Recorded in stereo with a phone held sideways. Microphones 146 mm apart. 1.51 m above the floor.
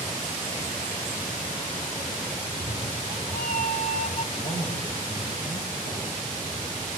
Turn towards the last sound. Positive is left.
turn(degrees=85)